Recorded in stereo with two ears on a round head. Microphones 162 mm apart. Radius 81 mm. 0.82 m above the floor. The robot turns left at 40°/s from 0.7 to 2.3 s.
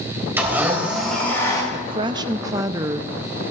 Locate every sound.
0.4 s a blender: 165° right, 4 m; by 1.6 s 155° left, 4 m
1.7 s a woman speaking: 35° right (ahead or behind), 0.6 m; by 3.5 s 20° right (ahead or behind), 0.6 m